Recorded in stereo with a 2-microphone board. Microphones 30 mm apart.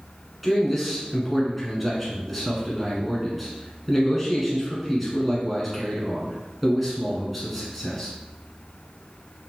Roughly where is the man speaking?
Centre.